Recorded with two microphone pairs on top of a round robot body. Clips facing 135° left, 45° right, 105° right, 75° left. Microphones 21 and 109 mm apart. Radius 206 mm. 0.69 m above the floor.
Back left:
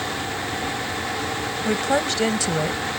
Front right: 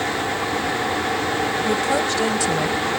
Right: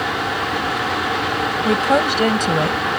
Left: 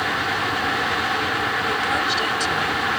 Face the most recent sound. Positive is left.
turn(degrees=-150)